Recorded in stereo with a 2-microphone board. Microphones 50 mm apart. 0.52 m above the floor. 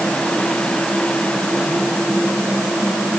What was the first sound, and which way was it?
Only background noise.